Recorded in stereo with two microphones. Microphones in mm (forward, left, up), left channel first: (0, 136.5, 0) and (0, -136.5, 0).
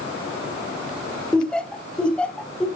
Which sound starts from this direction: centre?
Laughter, at 1.3 s.